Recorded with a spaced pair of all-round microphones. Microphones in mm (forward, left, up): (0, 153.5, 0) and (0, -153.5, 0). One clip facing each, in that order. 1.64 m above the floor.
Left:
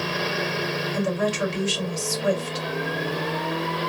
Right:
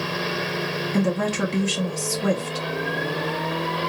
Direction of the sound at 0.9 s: 65° right (ahead or behind).